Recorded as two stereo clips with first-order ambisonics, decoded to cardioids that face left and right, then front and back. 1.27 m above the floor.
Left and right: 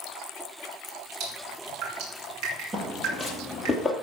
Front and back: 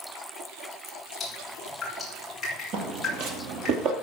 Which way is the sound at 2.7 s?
160° right.